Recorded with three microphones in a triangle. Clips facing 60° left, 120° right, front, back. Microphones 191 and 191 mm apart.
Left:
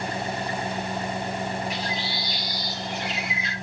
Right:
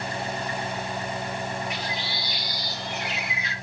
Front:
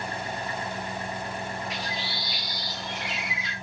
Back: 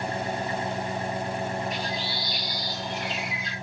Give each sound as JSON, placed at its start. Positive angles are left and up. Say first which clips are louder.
{"t": 0.0, "sound": "an engine running", "louder": "left 2 dB, back 4 dB", "azimuth_deg": 115, "distance_m": 1.4}
{"t": 1.7, "sound": "a bird", "louder": "left 2 dB, back 3 dB", "azimuth_deg": 0, "distance_m": 5.5}